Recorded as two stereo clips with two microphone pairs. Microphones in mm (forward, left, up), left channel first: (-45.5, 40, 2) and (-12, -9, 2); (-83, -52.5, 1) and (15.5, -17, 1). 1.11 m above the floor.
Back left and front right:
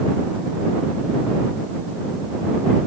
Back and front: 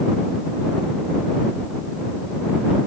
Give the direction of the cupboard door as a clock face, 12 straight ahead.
I don't hear a cupboard door.